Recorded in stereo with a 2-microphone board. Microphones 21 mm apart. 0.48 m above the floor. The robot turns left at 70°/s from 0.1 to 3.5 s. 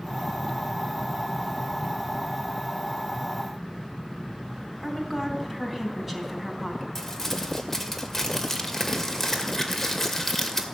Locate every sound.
4.8 s a woman speaking: 10° right (ahead or behind), 3.5 m
7.0 s crumpling: 15° left (ahead or behind), 2 m